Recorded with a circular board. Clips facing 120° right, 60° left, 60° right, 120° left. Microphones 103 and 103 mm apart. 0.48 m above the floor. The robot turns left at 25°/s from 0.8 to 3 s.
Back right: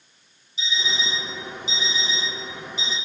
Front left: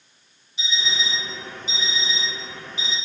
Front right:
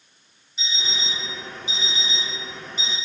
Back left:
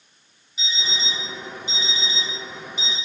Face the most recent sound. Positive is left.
turn(degrees=-20)